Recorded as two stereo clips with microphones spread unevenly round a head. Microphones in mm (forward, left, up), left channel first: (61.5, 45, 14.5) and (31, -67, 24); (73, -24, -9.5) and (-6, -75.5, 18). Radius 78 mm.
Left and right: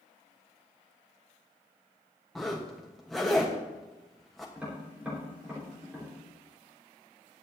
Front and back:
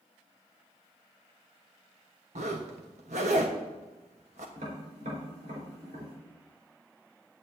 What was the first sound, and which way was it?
A zipper, 165° left.